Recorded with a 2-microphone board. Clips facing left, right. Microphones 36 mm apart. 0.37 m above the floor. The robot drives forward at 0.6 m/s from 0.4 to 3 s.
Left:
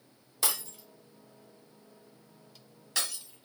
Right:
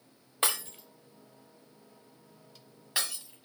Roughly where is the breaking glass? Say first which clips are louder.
Right 3 dB; right.